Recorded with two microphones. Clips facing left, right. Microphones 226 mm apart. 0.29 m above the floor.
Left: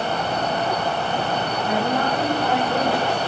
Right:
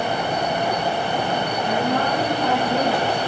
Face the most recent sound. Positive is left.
turn(degrees=0)  # may be behind; listen again after turning